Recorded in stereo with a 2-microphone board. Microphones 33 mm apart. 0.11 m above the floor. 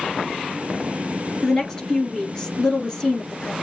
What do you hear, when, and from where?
1.4 s a woman speaking: 20° left (ahead or behind), 1.5 m